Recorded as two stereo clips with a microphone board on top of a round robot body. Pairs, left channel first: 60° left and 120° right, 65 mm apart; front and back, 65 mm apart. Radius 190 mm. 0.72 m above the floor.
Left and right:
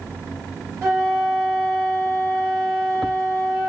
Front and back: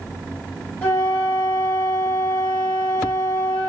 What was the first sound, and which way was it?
A flute, 65° right.